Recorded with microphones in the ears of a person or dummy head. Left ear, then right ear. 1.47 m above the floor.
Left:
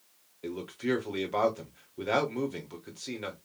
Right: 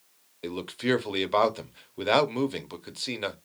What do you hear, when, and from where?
0.4 s a man speaking: 35° right (ahead or behind), 0.7 m